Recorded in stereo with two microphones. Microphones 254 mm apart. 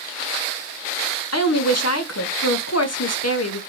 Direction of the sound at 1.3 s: 80° left.